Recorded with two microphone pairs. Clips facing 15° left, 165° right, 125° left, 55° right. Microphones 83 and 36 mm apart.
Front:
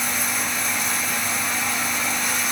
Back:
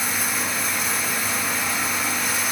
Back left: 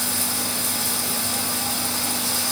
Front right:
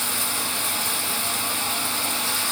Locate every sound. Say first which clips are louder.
0.0 s running water: even, even; 80° right, 1.0 m